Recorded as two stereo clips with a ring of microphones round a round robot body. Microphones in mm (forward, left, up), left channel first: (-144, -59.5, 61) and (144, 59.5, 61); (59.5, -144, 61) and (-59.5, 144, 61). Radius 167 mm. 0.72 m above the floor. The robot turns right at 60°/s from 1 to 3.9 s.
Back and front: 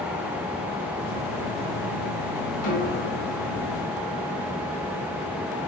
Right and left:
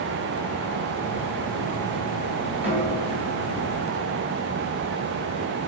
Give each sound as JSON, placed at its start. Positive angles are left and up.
{"t": 2.6, "sound": "a snare drum", "azimuth_deg": -160, "distance_m": 4.0}